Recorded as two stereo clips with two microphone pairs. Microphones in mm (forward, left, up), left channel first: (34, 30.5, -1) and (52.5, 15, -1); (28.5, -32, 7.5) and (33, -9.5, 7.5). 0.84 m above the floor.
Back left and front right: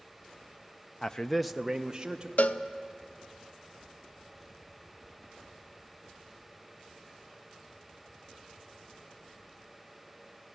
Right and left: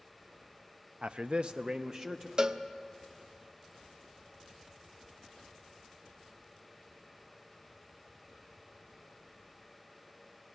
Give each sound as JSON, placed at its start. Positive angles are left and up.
{"t": 1.0, "sound": "a man speaking", "azimuth_deg": 90, "distance_m": 0.5}
{"t": 2.4, "sound": "a cowbell", "azimuth_deg": 130, "distance_m": 0.6}